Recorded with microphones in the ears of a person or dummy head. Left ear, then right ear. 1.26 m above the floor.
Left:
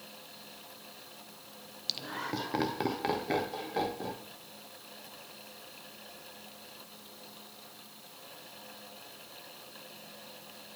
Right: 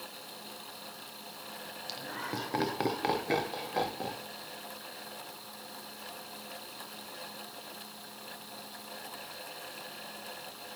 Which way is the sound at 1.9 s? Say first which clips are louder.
Left 3 dB; 25° left (ahead or behind).